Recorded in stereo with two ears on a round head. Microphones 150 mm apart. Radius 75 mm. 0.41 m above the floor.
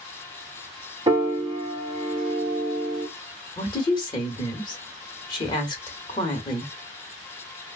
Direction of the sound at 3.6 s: 30° left (ahead or behind).